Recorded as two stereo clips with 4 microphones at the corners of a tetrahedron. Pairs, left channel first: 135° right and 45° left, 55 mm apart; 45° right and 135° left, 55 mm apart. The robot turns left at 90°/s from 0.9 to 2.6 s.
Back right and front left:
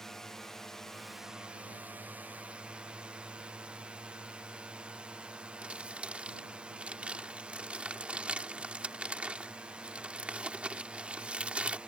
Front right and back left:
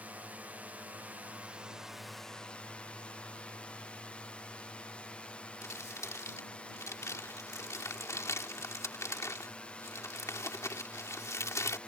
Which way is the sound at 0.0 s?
150° left.